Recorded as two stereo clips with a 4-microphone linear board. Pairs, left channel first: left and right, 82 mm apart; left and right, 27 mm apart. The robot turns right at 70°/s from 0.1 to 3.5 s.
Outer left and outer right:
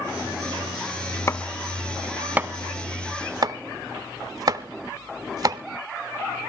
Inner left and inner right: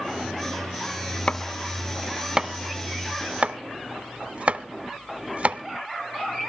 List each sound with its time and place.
1.3 s chopping: 40° left (ahead or behind), 0.5 m; by 5.6 s 50° right (ahead or behind), 0.5 m